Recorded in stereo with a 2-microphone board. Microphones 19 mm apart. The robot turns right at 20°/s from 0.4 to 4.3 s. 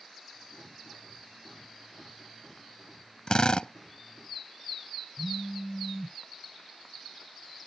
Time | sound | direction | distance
3.3 | a drill | 35° left (ahead or behind) | ?
5.2 | a phone buzzing | 10° right (ahead or behind) | ?